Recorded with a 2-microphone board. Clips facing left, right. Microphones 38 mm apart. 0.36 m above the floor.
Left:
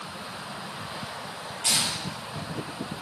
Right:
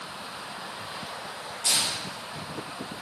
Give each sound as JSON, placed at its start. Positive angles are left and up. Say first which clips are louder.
{"t": 1.6, "sound": "tearing paper", "louder": "left 1 dB", "side_deg": 75, "distance_m": 9.0}